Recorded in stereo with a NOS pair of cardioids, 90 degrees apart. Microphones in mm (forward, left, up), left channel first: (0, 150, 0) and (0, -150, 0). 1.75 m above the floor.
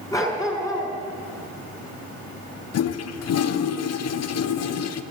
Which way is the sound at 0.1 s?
10° left.